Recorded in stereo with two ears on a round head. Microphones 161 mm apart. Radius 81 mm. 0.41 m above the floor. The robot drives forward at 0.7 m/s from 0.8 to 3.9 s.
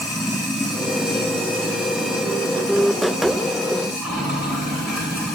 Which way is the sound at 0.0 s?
5° right (ahead or behind).